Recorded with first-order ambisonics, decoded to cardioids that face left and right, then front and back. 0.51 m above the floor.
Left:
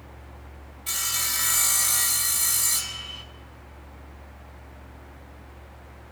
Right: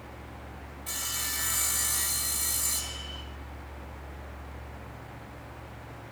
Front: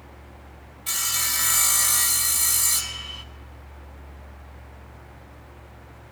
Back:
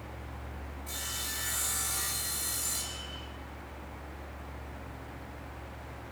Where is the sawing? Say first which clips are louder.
Left 6 dB, front 12 dB; 20° left, 0.8 m.